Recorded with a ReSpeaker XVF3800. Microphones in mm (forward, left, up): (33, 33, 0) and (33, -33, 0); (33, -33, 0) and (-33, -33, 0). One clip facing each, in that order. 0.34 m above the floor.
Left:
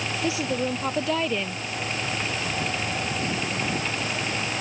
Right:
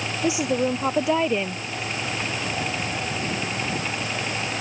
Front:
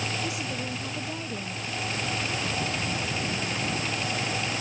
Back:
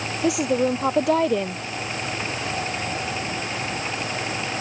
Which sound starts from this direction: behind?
A woman speaking, at 0.2 s.